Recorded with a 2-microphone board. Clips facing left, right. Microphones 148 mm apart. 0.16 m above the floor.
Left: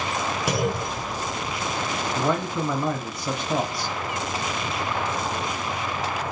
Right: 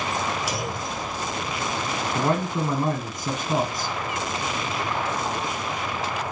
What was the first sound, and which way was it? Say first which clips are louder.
A clunk: left 4 dB; 55° left (ahead or behind).